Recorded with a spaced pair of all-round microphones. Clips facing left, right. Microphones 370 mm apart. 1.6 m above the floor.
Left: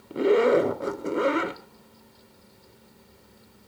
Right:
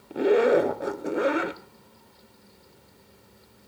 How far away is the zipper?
About 1.0 m.